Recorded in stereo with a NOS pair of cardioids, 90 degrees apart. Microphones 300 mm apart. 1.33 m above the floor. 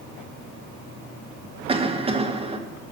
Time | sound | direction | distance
1.7 | a cough | 20° right | 1.6 m